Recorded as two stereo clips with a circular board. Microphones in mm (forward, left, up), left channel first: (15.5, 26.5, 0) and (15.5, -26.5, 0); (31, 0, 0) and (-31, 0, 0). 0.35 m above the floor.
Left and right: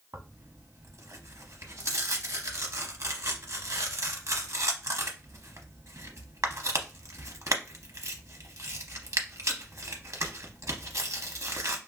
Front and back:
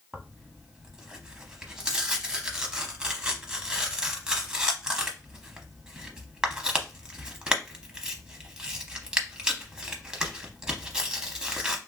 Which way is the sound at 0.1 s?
105° right.